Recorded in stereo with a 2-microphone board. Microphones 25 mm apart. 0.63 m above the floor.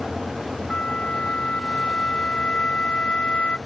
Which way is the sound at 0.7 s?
50° left (ahead or behind).